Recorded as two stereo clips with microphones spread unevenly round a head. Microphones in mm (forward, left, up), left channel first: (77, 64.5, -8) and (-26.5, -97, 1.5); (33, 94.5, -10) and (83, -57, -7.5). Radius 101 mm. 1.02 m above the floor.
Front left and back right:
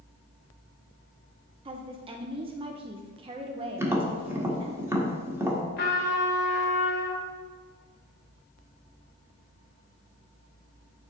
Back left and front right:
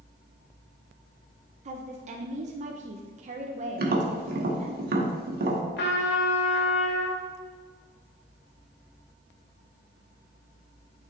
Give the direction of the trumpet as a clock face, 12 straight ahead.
9 o'clock.